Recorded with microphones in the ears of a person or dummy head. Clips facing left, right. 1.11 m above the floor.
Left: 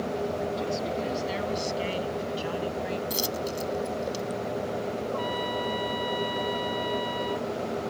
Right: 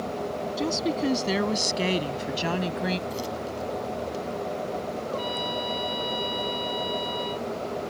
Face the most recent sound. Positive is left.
turn(degrees=-35)  # may be behind; listen again after turning